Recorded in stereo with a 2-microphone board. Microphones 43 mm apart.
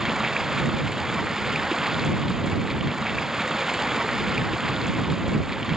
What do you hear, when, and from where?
0.0 s running water: 10° right (ahead or behind)